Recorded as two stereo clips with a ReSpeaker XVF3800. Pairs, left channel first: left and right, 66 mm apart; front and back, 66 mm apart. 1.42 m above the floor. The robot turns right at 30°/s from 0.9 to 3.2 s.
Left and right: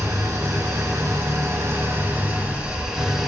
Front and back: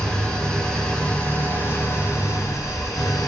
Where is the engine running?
70° right, 2.5 m; by 3.3 s straight ahead, 2.5 m.